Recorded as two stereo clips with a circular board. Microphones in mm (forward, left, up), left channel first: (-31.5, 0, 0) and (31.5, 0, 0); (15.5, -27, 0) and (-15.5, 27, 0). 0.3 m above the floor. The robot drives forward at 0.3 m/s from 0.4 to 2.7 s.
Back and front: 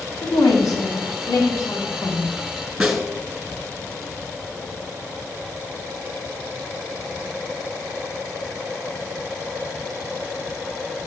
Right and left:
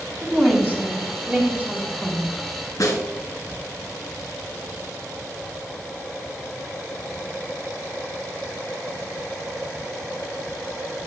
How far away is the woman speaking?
About 3.5 m.